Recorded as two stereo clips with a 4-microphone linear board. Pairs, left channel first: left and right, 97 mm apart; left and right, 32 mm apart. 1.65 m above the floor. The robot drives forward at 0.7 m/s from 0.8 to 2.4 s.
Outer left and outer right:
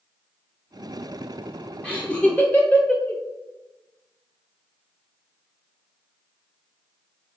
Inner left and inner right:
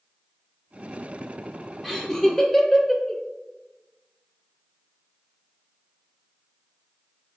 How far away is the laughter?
About 0.7 m.